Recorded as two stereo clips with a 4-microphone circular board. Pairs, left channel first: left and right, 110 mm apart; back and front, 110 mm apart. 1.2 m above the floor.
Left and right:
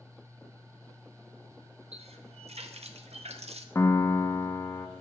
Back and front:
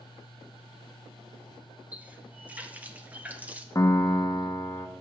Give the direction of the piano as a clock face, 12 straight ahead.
7 o'clock.